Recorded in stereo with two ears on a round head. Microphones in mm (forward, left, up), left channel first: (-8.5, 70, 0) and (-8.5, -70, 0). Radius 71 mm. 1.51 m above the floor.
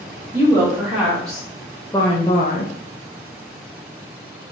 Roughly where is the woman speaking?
Centre.